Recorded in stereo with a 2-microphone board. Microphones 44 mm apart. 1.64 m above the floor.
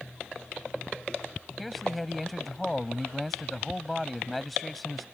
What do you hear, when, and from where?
1.6 s a man speaking: centre (ahead or behind)